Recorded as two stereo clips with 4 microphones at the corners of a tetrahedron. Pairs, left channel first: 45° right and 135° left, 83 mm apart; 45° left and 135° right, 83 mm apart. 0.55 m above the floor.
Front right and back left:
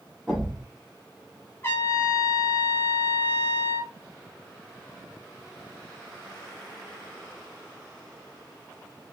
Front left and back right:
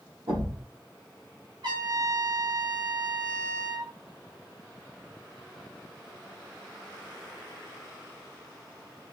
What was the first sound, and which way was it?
A thud, 135° right.